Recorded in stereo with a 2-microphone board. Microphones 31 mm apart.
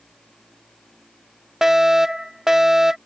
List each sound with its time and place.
1.6 s a fire alarm: 15° right (ahead or behind)